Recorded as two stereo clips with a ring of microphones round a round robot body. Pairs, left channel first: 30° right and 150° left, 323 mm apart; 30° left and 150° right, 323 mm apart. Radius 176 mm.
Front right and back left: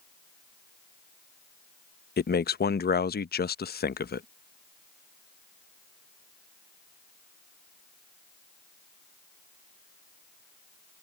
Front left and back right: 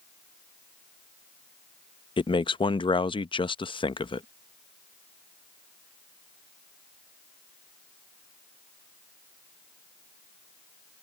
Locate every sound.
2.2 s a man speaking: 30° right